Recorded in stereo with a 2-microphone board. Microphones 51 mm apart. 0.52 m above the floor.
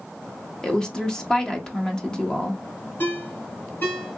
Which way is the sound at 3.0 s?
45° left (ahead or behind).